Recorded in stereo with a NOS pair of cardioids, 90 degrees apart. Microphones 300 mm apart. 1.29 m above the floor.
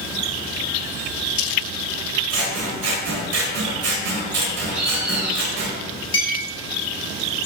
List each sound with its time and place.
2.3 s scissors: 55° right, 0.9 m
4.7 s a bird: 5° right, 0.8 m
6.1 s a clink: 45° left, 1.4 m